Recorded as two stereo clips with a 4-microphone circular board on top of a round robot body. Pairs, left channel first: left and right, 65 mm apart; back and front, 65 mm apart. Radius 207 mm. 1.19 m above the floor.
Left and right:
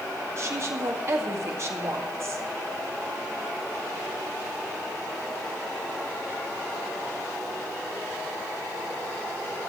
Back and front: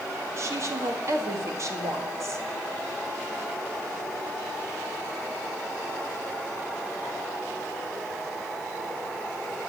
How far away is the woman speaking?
About 2.0 m.